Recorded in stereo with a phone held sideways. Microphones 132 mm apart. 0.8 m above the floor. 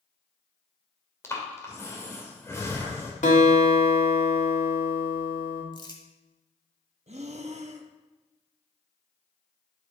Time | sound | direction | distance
1.2 | breathing | 20° left (ahead or behind) | 1.8 m
3.2 | a guitar | 70° left (ahead or behind) | 1.9 m
5.7 | crumpling | 35° left (ahead or behind) | 1.4 m
7.1 | breathing | 60° right (ahead or behind) | 0.8 m